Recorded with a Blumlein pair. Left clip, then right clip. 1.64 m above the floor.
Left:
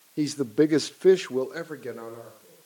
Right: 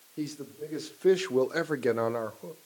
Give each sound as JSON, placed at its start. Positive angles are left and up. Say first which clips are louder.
{"t": 0.2, "sound": "a man speaking", "louder": "left 14 dB", "azimuth_deg": 65, "distance_m": 1.0}